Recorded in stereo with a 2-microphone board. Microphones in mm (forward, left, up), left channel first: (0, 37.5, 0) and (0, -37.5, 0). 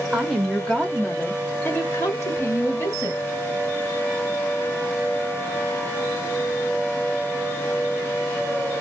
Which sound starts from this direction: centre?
A woman speaking, at 0.1 s.